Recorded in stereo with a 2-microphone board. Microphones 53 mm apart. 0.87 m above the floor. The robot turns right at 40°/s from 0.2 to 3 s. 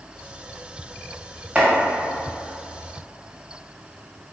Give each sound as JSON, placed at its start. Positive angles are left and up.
{"t": 1.6, "sound": "chopping", "side_deg": -25, "distance_m": 1.4}